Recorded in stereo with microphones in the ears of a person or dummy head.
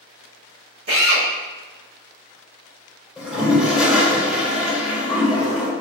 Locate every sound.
0.9 s a drill: 55° right (ahead or behind), 1.3 m
3.2 s a toilet flushing: 5° right (ahead or behind), 1.0 m